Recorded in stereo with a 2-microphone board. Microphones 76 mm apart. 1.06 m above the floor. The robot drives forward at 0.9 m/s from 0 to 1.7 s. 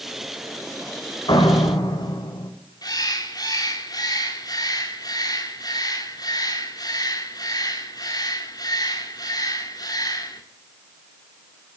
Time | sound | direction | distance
1.3 | a door slam | 70° left (ahead or behind) | 4.5 m
2.8 | a bird | 55° left (ahead or behind) | 3.5 m